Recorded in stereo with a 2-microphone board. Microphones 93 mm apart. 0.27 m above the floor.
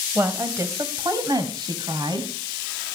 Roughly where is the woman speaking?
Right.